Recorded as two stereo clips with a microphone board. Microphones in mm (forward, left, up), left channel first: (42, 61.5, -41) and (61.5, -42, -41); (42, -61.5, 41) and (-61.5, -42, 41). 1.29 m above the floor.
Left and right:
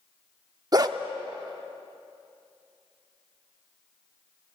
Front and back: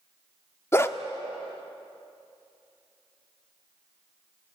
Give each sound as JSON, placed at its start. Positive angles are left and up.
{"t": 0.7, "sound": "a dog barking", "azimuth_deg": -60, "distance_m": 1.0}